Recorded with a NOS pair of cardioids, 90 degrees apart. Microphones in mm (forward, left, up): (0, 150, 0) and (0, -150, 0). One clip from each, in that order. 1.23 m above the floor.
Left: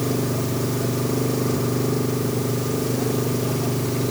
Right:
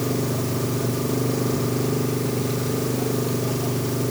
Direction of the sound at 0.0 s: 5° left.